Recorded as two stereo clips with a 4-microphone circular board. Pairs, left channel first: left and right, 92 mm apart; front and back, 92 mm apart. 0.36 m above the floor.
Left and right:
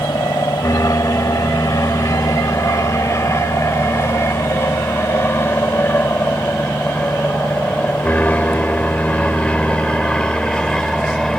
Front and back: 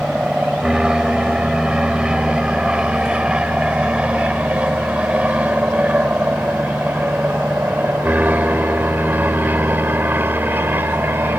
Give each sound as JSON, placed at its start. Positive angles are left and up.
{"t": 0.0, "sound": "an aircraft", "azimuth_deg": 100}